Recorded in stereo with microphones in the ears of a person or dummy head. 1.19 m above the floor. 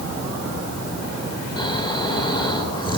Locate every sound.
1.6 s snoring: 20° left (ahead or behind), 2.5 m